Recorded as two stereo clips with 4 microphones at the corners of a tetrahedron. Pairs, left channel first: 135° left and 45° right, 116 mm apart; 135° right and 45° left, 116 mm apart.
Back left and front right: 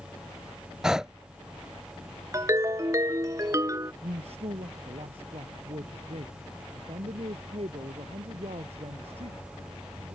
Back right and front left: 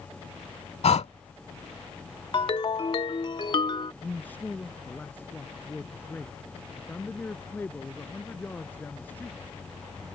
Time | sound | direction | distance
0.8 | breathing | 130° right | ?
2.3 | a ringtone | 100° right | ?
4.0 | a man speaking | 60° right | ?